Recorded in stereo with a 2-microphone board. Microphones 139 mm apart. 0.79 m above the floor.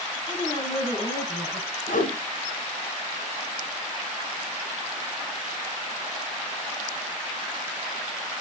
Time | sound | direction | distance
0.3 | a woman speaking | 30° left (ahead or behind) | 6.5 m
1.9 | a whoosh | 80° left | 4.5 m